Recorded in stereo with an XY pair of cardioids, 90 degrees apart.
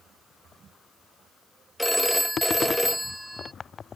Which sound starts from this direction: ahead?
A phone ringing, at 1.8 s.